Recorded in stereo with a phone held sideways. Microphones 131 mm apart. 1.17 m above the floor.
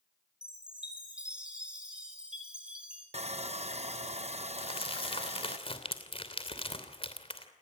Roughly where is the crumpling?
Left.